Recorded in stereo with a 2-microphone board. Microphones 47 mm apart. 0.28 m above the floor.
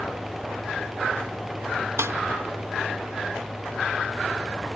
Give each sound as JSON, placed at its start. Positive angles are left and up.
{"t": 2.0, "sound": "a snare drum", "side_deg": -70, "distance_m": 0.8}